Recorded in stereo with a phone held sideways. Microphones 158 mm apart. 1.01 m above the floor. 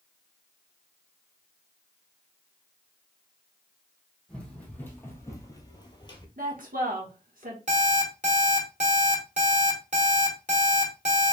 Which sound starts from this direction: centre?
Running footsteps, at 4.3 s.